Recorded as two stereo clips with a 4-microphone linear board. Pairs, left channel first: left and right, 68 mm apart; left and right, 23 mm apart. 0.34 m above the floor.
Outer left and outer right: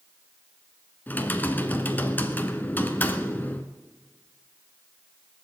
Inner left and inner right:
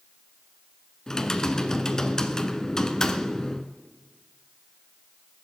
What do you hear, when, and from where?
1.1 s typing on a keyboard: 25° left (ahead or behind), 0.9 m